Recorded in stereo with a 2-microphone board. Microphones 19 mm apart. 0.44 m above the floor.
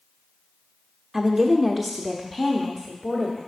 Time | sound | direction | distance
1.1 | a woman speaking | 15° right (ahead or behind) | 0.8 m